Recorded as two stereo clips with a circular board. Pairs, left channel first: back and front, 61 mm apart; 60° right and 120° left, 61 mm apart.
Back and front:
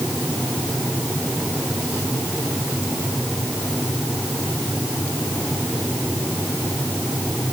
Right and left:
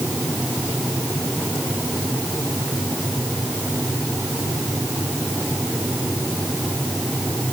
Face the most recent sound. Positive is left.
No sound to turn to.